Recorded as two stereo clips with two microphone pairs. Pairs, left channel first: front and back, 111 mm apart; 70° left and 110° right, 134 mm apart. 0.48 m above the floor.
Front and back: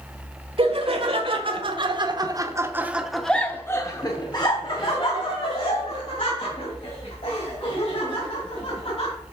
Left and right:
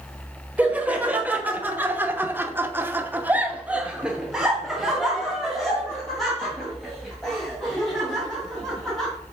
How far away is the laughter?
About 1.5 m.